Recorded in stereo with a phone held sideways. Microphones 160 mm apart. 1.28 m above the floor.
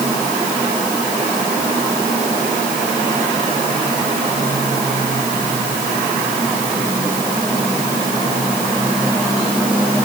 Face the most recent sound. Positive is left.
No sound to turn to.